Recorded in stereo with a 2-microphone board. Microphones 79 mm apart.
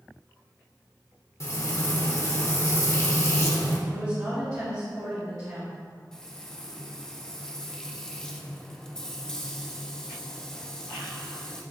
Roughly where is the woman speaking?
Right.